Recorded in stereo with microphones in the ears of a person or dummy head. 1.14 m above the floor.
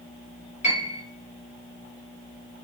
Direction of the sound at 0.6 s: 30° left (ahead or behind).